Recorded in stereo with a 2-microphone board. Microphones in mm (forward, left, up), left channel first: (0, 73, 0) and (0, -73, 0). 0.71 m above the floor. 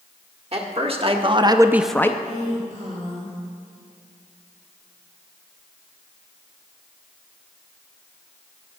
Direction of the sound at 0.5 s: 45° right (ahead or behind).